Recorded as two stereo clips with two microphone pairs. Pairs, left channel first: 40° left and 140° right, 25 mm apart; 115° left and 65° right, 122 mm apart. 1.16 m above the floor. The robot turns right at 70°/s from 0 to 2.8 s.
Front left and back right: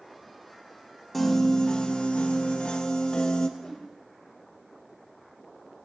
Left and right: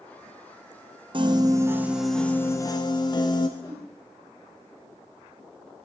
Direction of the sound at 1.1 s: 45° right.